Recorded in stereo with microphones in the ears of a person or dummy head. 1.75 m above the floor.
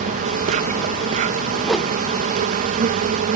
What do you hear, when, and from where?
0.0 s an insect: 45° right (ahead or behind)
1.6 s a whoosh: centre (ahead or behind)